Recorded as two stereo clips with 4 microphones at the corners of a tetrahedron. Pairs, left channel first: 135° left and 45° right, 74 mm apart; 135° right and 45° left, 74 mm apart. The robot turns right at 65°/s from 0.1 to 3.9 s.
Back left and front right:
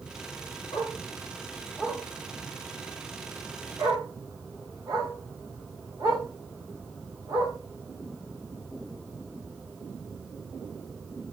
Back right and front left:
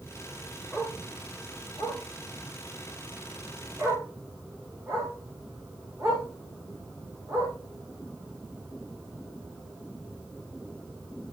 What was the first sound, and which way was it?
A dog barking, 140° left.